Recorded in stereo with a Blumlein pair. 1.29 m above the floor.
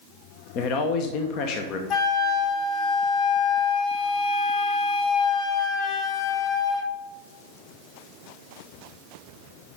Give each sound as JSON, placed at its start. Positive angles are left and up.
{"t": 0.6, "sound": "a man speaking", "azimuth_deg": 40, "distance_m": 1.1}
{"t": 1.9, "sound": "a flute", "azimuth_deg": 35, "distance_m": 1.2}